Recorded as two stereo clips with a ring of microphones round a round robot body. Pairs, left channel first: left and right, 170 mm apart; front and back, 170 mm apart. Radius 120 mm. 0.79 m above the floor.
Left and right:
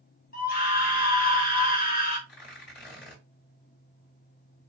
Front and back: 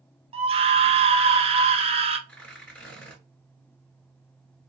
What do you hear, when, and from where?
0.3 s a scream: 130° left, 1.0 m
2.3 s tearing paper: 80° left, 3 m